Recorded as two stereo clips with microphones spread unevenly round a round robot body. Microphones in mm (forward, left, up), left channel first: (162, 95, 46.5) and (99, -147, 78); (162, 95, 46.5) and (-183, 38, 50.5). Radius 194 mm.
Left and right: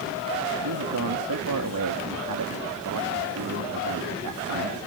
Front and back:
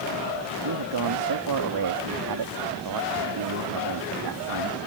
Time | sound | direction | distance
0.6 | a man speaking | 135° right | ?